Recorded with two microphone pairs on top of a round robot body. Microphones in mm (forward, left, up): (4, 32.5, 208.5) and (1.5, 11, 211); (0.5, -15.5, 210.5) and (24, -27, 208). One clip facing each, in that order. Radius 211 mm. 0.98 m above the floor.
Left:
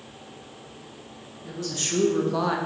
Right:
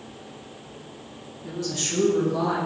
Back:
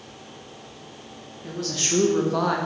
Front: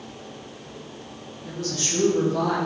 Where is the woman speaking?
175° right, 1.8 m; by 2.6 s 115° left, 1.4 m.